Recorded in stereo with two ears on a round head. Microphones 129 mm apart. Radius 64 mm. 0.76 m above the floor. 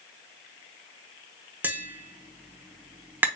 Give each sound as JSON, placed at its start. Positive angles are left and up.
{"t": 1.6, "sound": "tapping", "side_deg": -15, "distance_m": 0.8}